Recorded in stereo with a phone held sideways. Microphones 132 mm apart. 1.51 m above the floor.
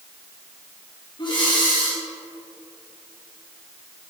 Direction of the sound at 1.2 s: 35° left (ahead or behind).